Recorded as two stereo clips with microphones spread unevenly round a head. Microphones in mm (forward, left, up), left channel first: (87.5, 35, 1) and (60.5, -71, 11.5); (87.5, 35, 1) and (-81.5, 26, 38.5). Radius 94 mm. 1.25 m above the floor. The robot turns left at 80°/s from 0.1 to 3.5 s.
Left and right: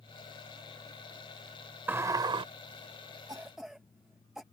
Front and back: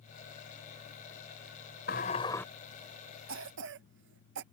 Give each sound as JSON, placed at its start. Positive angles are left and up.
{"t": 1.9, "sound": "a sliding door", "azimuth_deg": -40}
{"t": 3.3, "sound": "a cough", "azimuth_deg": -175}